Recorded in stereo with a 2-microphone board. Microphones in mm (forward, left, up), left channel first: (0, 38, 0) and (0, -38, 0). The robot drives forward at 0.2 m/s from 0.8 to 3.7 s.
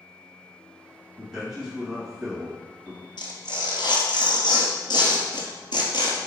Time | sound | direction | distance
1.2 | a man speaking | 10° right (ahead or behind) | 1.1 m
3.2 | tearing paper | 85° left | 1.2 m